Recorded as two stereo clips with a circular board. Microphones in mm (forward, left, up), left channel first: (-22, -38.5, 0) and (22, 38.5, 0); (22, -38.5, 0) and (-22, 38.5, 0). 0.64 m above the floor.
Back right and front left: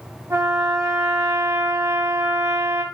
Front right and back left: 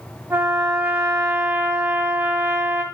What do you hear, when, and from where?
0.3 s a trumpet: 75° left, 0.5 m